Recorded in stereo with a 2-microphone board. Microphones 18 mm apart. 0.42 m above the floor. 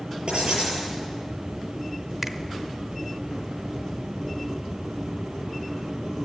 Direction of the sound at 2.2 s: 10° right (ahead or behind).